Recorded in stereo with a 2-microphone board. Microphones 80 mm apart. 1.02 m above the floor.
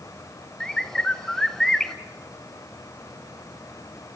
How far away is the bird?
About 0.8 m.